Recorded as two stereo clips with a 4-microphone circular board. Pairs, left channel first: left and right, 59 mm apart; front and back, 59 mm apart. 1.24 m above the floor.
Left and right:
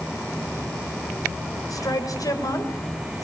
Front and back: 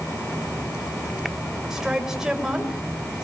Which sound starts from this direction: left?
A woman speaking, at 1.7 s.